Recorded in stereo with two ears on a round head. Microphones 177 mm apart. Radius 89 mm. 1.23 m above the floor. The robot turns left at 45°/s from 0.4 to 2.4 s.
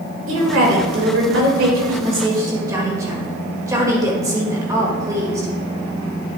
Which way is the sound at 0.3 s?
70° right.